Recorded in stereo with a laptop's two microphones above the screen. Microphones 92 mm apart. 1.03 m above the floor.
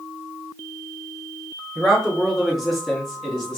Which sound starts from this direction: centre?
A man speaking, at 1.8 s.